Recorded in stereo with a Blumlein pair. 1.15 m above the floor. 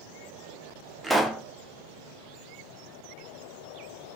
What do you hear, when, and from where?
1.0 s a pop: 5° right, 0.5 m